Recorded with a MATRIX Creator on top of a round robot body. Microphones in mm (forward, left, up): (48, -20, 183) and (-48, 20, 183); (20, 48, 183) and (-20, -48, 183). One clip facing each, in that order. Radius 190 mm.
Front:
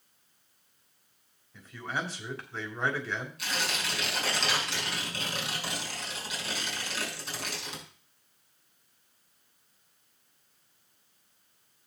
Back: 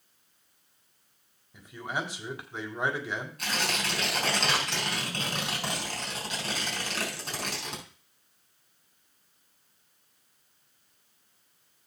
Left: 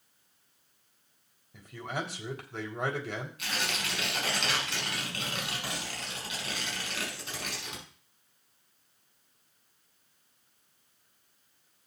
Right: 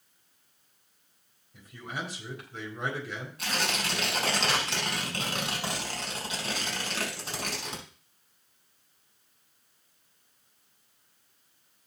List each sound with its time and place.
1.5 s a man speaking: 85° left, 3.5 m
3.4 s tearing paper: 160° right, 5.5 m